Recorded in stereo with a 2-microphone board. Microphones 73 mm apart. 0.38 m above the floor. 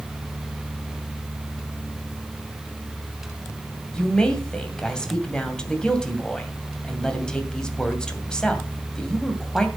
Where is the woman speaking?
10° left (ahead or behind), 2 m.